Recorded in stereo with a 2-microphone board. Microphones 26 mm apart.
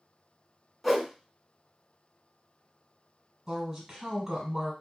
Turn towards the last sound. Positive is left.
turn(degrees=-10)  # may be behind; listen again after turning